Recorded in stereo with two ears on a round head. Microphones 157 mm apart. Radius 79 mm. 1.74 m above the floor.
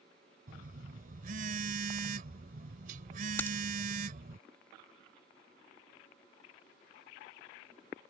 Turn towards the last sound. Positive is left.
turn(degrees=15)  # may be behind; listen again after turning